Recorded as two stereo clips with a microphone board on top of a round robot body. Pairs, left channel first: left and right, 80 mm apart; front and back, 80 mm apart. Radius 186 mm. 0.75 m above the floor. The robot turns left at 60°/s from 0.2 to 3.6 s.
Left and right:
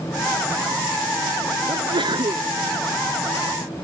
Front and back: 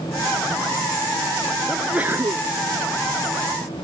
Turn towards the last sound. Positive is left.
turn(degrees=155)